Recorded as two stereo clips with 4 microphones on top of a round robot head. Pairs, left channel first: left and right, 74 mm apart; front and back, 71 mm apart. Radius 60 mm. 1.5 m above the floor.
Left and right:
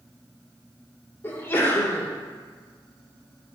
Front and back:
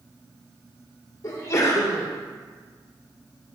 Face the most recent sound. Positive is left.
turn(degrees=35)